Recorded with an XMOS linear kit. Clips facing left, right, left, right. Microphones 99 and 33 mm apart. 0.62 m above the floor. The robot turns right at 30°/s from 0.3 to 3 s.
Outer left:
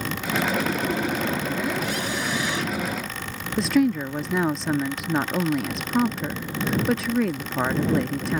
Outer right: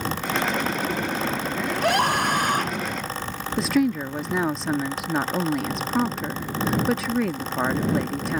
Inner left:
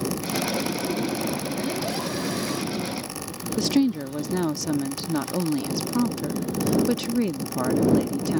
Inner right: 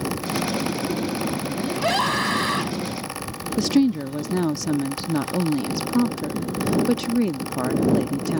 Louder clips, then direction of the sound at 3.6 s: Outer left 1 dB, inner right 3 dB; centre (ahead or behind).